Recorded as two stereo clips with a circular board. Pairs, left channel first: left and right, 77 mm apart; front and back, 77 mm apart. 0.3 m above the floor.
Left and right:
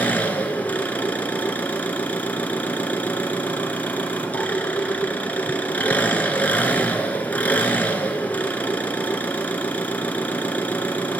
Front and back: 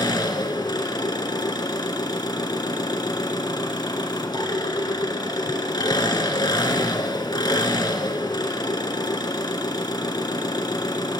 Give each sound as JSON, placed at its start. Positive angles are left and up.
{"t": 0.0, "sound": "an engine running", "azimuth_deg": 20, "distance_m": 1.8}